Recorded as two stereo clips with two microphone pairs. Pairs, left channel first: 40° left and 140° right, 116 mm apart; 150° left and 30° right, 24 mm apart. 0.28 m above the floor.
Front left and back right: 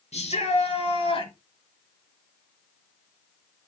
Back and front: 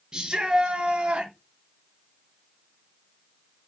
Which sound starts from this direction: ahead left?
A shout, at 0.1 s.